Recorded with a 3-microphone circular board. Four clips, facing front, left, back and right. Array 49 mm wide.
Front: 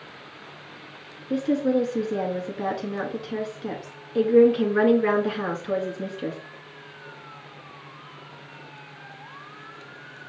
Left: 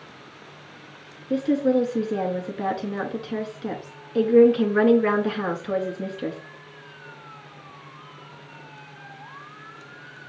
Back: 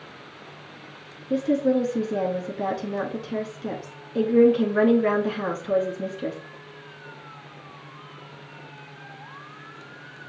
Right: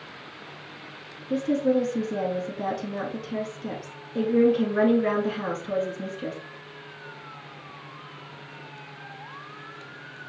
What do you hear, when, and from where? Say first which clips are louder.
1.3 s a woman speaking: left 2 dB, back 1 dB; 70° left, 1.3 m